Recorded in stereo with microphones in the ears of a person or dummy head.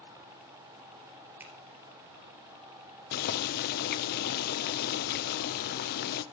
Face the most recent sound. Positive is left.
turn(degrees=55)  # may be behind; listen again after turning